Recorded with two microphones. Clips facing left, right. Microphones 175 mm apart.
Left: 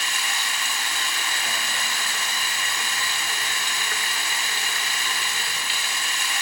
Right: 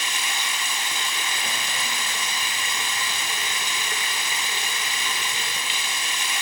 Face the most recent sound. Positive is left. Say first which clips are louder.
# even
turn(degrees=-20)  # may be behind; listen again after turning